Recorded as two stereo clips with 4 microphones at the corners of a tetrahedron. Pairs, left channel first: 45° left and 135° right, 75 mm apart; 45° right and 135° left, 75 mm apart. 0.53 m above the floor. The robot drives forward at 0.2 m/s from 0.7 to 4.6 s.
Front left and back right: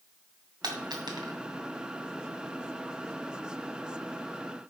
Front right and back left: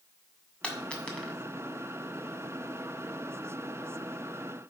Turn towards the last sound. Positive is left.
turn(degrees=-140)